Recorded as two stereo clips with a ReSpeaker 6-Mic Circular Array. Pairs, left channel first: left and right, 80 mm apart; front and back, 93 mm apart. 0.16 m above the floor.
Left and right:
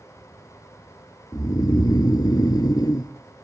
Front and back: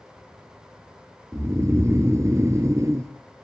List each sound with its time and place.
1.3 s snoring: 125° left, 0.7 m